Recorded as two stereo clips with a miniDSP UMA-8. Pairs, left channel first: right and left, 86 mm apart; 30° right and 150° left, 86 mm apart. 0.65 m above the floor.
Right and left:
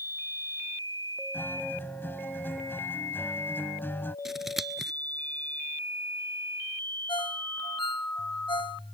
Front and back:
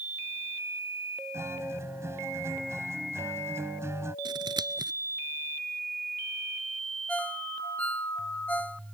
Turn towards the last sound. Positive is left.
turn(degrees=-100)